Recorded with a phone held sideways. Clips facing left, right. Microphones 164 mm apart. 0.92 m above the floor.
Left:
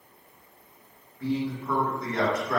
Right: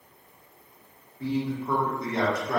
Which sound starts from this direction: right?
A man speaking, at 1.2 s.